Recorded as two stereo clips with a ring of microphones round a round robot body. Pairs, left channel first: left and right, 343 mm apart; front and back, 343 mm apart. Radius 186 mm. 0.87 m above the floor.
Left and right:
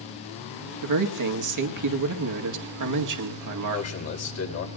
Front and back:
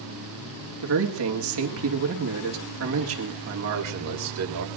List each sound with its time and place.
0.8 s a man speaking: 125° right, 2.0 m
3.7 s a man speaking: 135° left, 4.5 m